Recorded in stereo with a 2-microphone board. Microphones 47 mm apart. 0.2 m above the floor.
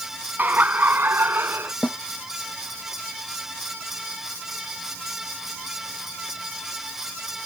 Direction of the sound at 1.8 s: 30° left (ahead or behind).